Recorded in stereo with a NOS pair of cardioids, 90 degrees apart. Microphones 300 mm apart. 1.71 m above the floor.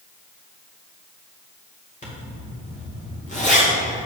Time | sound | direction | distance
2.0 | a zipper | 25° left | 2.5 m